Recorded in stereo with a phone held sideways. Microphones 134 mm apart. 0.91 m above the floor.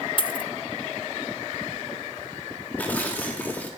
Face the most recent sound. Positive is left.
turn(degrees=10)  # may be behind; listen again after turning